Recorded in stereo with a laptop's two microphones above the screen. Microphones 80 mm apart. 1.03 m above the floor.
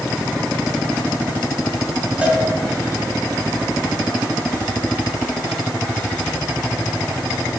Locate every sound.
2.2 s a cowbell: 10° right (ahead or behind), 2.5 m